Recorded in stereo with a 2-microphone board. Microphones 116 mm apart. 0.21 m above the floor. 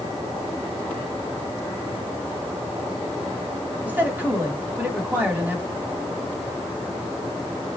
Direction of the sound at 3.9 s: 15° right (ahead or behind).